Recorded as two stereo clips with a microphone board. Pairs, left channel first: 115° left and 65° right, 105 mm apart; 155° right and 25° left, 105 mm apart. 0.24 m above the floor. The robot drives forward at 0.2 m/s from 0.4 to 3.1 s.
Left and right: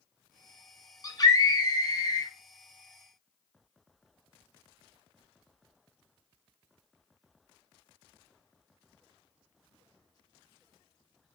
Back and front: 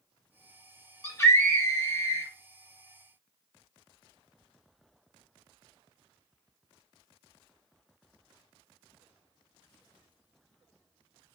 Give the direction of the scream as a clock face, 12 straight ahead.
7 o'clock.